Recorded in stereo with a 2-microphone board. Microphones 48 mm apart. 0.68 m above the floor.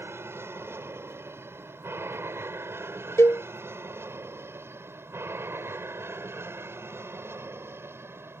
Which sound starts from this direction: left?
A cowbell, at 3.2 s.